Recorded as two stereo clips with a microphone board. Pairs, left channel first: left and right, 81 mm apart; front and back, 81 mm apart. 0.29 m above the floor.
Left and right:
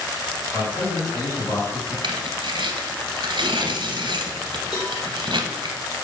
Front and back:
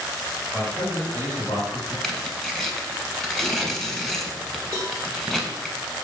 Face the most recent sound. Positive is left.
turn(degrees=125)